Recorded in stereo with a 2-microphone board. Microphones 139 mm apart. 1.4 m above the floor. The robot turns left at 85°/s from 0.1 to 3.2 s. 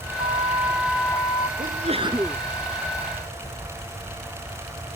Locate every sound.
0.2 s a flute: 120° right; by 1.5 s 130° left
1.6 s a sneeze: 105° right; by 2.4 s straight behind